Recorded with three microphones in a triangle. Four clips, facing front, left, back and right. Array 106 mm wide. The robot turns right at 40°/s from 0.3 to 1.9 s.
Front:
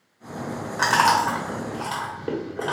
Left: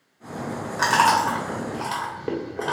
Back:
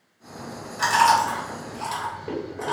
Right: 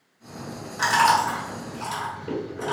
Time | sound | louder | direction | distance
0.8 | chewing | left 1 dB, back 1 dB | 25° left | 1.5 m